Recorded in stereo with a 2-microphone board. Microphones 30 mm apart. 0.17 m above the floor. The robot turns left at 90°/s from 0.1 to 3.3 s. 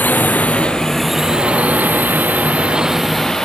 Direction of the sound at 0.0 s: 80° left.